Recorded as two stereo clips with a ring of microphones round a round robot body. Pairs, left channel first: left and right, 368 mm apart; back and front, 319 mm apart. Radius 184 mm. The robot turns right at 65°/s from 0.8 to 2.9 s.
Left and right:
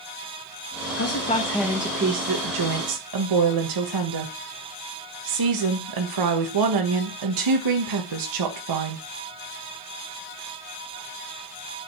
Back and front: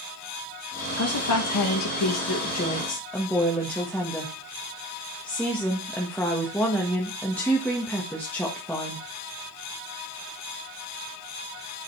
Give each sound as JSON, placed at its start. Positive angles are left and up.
{"t": 1.0, "sound": "a woman speaking", "azimuth_deg": 140, "distance_m": 1.2}